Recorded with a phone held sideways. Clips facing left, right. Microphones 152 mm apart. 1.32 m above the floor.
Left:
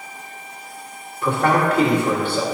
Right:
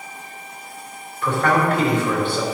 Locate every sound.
1.2 s a man speaking: 35° left (ahead or behind), 1.8 m